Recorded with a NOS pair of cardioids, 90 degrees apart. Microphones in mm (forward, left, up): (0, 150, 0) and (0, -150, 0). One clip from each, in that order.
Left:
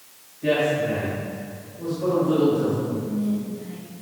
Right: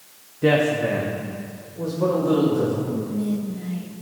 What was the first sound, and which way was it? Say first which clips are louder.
A woman speaking: right 2 dB; 65° right.